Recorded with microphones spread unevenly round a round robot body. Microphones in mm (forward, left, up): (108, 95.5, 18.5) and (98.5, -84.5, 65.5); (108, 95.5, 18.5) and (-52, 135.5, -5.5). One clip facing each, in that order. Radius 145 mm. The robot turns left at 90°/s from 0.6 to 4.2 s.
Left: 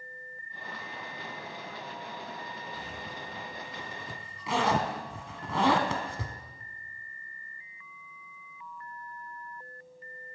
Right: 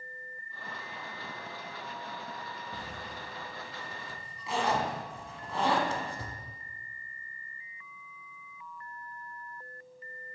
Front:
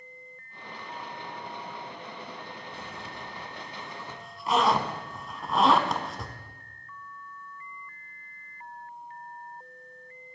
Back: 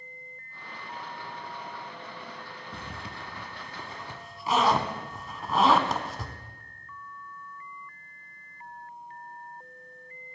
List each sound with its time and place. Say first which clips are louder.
2.7 s a zipper: left 1 dB, even; 155° right, 0.8 m; by 6.4 s 75° left, 0.8 m